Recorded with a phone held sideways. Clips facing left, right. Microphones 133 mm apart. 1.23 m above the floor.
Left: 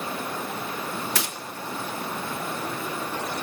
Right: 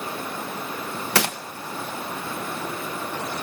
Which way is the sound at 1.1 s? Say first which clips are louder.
Right 7 dB; 70° right (ahead or behind).